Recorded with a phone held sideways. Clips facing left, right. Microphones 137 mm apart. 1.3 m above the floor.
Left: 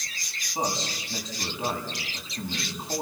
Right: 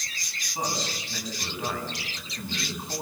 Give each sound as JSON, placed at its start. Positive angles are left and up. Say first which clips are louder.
{"t": 0.6, "sound": "a man speaking", "louder": "left 2 dB", "side_deg": 25, "distance_m": 8.5}